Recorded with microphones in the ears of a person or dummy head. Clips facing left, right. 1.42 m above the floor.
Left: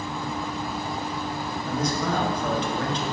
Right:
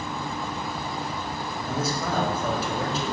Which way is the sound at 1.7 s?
Centre (ahead or behind).